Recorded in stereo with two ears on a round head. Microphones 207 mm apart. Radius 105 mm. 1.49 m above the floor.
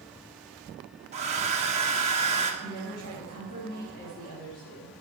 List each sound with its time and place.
1.1 s a hair dryer: 30° right (ahead or behind), 1.1 m
2.6 s a woman speaking: 40° left (ahead or behind), 3 m